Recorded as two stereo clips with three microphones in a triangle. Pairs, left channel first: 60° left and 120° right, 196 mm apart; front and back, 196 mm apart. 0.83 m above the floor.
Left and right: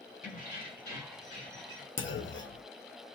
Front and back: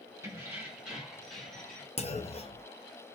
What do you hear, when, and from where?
0.2 s keys jangling: 105° left, 2.0 m; by 1.9 s 85° left, 3 m
2.0 s a clunk: 60° left, 0.6 m